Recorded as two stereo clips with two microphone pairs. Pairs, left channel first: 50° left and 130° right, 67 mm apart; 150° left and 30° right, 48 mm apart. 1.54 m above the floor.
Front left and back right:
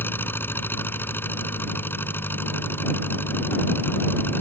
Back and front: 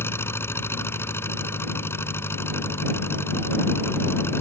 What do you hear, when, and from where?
0.0 s an engine running: 110° left